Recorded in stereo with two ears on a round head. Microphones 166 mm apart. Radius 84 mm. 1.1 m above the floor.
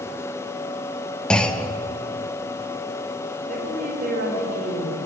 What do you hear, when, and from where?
1.3 s a clunk: 5° left (ahead or behind), 0.7 m
3.5 s a woman speaking: 45° right (ahead or behind), 3.5 m